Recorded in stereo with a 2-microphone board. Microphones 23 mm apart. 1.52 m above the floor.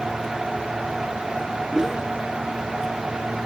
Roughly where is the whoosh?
Centre.